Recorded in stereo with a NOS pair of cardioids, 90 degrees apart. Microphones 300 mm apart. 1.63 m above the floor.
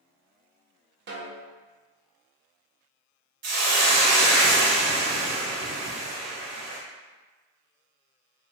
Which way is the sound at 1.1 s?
35° right.